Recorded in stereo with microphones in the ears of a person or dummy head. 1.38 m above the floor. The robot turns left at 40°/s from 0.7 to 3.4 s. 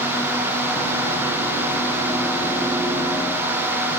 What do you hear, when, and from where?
Only background noise.